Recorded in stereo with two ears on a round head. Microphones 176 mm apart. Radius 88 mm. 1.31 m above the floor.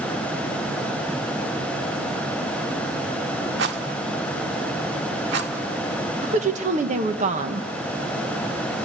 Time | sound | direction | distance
3.6 | a rattle | 60° right (ahead or behind) | 1.4 m
6.2 | a woman speaking | 40° right (ahead or behind) | 1.2 m